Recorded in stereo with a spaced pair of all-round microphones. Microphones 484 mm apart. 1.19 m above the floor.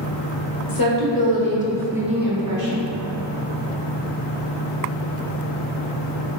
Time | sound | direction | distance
0.7 | a woman speaking | 50° left (ahead or behind) | 1.1 m